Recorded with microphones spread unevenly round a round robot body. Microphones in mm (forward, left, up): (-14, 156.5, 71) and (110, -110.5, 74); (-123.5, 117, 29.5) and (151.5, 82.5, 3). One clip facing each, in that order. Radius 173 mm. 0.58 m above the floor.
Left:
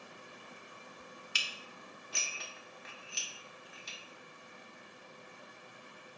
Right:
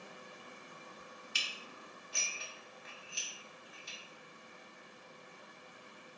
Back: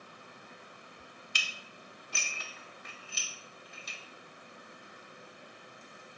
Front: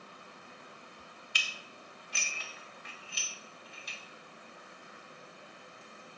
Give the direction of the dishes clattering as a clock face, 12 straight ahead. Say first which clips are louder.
Even, even; 8 o'clock.